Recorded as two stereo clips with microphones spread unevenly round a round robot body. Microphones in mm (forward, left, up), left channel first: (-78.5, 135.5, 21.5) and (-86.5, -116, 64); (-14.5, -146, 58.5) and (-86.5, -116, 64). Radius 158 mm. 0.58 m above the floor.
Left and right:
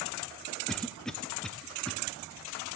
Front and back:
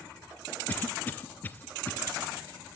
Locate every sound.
0.7 s a cough: 15° left, 0.7 m